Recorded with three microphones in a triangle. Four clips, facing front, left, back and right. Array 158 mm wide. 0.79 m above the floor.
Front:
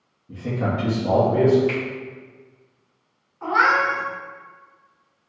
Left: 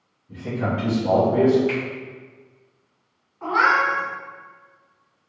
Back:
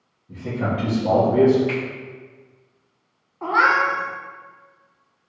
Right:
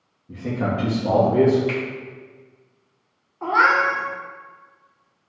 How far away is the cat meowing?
About 0.9 m.